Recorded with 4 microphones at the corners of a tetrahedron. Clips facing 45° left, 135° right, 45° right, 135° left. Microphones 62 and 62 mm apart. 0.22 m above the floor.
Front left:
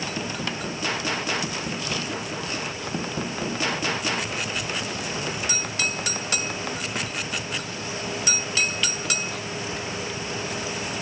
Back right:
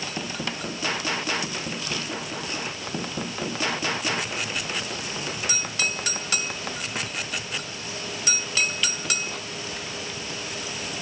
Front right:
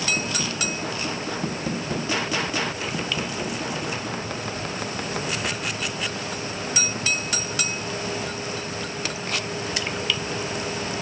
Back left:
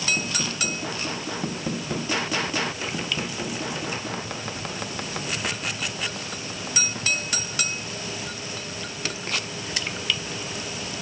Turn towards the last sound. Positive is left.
No sound to turn to.